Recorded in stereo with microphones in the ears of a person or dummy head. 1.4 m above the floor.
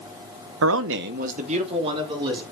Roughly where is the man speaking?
Right.